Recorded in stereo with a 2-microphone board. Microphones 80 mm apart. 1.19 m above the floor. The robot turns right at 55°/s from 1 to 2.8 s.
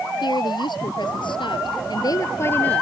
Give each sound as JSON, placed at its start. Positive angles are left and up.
{"t": 0.2, "sound": "a woman speaking", "azimuth_deg": 70}